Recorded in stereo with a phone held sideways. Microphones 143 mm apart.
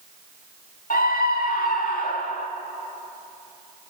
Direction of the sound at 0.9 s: 75° left (ahead or behind).